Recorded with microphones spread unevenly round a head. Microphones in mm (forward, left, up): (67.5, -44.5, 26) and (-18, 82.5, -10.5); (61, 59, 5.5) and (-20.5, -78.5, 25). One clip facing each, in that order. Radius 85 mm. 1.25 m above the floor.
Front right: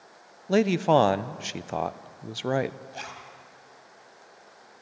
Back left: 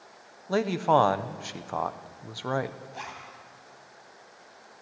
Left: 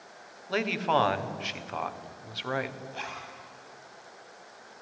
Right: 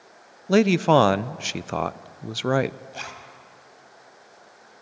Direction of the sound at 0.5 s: 130° right.